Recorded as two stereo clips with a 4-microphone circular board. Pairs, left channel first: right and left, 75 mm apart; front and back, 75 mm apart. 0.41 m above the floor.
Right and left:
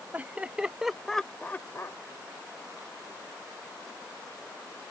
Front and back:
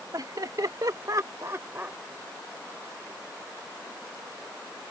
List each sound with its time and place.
0.1 s laughter: 155° left; by 2.0 s 120° right